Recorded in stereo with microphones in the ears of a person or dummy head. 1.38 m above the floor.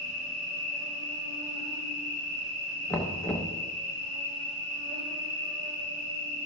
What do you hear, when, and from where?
0.0 s an insect: 40° right (ahead or behind), 4 m
2.9 s knocking: 5° left (ahead or behind), 0.6 m